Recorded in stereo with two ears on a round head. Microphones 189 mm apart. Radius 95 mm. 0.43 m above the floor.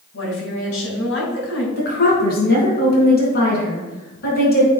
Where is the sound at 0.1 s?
70° left (ahead or behind), 3.5 m.